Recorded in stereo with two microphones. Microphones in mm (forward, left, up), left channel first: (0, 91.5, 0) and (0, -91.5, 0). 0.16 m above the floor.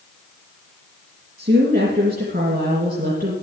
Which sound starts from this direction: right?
A woman speaking, at 1.4 s.